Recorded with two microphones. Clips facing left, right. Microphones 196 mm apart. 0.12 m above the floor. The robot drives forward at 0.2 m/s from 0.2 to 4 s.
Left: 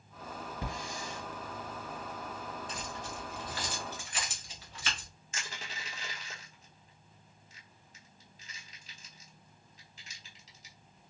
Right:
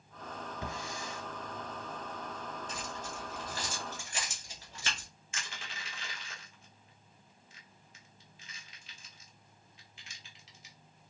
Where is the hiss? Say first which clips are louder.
Left 1 dB; 40° left (ahead or behind), 1.8 m.